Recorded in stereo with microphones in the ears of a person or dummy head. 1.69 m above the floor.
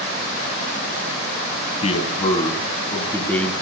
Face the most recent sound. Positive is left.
turn(degrees=5)  # may be behind; listen again after turning